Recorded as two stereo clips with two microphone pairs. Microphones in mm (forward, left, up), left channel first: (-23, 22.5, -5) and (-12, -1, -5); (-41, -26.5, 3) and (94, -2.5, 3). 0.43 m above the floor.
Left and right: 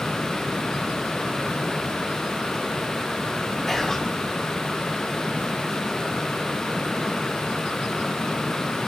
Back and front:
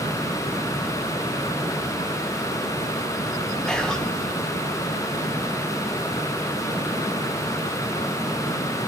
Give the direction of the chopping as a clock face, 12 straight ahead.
No chopping in this recording.